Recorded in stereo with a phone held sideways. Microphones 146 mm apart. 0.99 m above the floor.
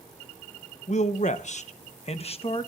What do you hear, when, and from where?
0.9 s a man speaking: 50° left (ahead or behind), 0.8 m; by 2.7 s 40° left (ahead or behind), 1.2 m